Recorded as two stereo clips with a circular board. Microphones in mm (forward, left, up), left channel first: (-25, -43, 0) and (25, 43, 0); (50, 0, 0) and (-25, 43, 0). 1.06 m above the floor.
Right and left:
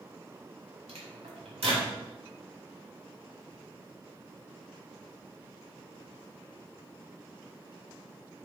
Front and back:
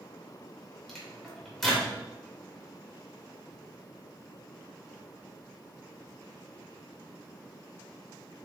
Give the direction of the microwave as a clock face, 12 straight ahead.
10 o'clock.